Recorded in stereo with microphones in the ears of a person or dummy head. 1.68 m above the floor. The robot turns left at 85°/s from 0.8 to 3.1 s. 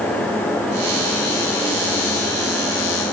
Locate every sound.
Only background noise.